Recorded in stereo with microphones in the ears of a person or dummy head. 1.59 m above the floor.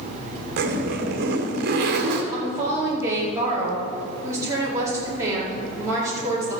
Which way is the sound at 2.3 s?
20° right (ahead or behind).